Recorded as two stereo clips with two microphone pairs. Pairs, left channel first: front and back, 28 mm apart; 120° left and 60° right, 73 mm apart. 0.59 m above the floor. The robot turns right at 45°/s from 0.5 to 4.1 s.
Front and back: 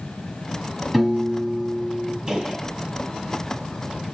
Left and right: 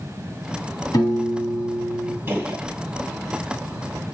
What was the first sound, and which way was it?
A piano, 95° left.